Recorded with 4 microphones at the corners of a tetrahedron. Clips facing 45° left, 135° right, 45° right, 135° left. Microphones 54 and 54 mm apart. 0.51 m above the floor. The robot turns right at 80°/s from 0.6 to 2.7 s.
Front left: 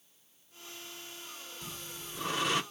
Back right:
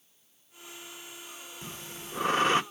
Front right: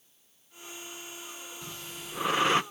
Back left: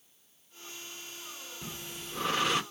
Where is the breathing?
170° right, 0.7 m; by 2.6 s 90° right, 0.7 m.